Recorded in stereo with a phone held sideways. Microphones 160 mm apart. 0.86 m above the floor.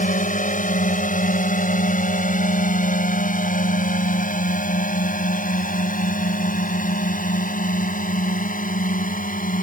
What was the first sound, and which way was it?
A drone, 55° left (ahead or behind).